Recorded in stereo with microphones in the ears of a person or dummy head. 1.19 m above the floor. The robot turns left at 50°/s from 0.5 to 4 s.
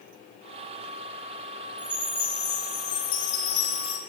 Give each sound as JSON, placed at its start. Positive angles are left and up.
{"t": 1.8, "sound": "a chime", "azimuth_deg": -170, "distance_m": 1.6}